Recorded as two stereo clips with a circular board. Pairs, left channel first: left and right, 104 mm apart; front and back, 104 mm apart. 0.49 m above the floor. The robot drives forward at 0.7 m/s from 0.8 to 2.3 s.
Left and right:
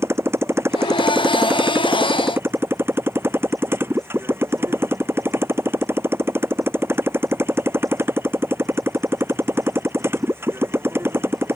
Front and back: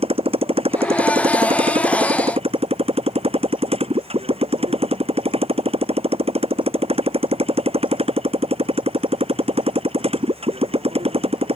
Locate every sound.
0.0 s a motorcycle: 155° right